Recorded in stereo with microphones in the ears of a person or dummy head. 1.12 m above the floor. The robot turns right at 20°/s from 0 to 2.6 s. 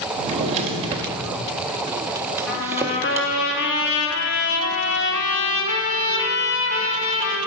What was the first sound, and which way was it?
A drawer, 35° right (ahead or behind).